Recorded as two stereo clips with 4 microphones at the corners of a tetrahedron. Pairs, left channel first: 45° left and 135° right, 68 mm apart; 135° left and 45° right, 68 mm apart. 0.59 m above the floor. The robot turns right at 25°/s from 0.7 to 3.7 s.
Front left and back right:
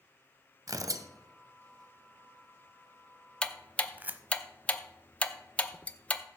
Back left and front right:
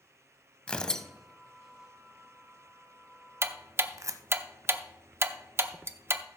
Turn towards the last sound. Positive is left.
turn(degrees=-20)